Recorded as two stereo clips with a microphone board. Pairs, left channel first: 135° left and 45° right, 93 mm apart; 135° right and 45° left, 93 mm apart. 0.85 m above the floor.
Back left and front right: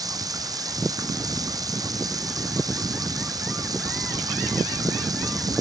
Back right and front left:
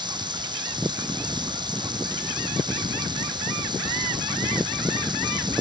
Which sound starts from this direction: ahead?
Running water, at 0.0 s.